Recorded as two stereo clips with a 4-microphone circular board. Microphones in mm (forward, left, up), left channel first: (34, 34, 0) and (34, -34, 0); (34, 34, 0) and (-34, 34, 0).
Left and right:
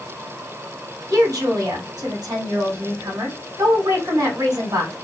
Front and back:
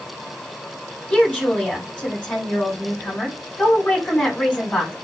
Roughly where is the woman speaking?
Right.